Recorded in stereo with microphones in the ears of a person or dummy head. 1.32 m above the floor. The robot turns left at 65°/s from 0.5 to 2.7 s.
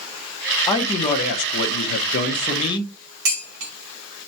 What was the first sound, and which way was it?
A man speaking, 155° left.